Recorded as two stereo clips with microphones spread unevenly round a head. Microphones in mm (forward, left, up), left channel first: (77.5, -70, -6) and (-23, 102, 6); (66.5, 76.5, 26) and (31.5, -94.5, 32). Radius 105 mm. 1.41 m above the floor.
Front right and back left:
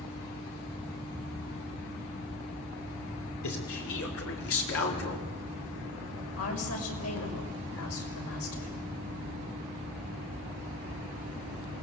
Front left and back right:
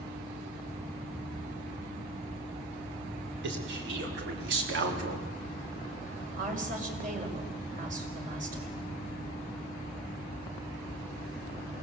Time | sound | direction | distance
3.4 | a man speaking | 90° right | 5.5 m
6.4 | a woman speaking | 55° right | 5.5 m